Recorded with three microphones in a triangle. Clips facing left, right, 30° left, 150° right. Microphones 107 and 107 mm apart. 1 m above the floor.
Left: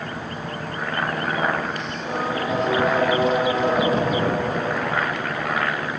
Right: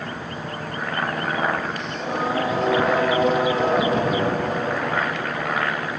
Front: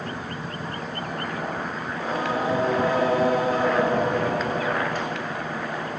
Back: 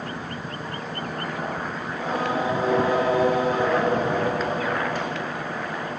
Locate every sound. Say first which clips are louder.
1.9 s singing: right 1 dB, back 1 dB; 80° right, 2.5 m